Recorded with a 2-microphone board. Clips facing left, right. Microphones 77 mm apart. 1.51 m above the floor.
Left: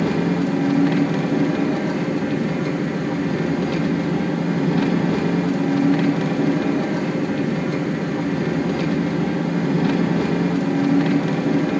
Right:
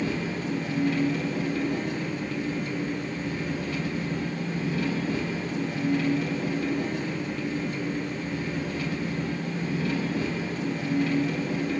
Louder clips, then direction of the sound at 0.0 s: Left 10 dB; 75° left (ahead or behind).